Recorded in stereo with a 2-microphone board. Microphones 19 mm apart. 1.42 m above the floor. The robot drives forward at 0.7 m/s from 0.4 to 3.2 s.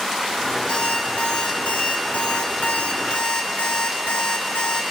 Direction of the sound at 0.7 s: 55° left (ahead or behind).